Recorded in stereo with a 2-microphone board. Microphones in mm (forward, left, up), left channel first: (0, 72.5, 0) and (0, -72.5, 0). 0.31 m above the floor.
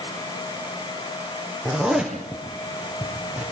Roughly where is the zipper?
Centre.